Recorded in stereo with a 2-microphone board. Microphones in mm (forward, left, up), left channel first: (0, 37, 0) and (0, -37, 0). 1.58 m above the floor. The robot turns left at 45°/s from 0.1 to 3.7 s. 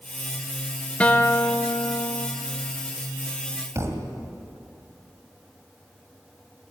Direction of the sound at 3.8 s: 40° right (ahead or behind).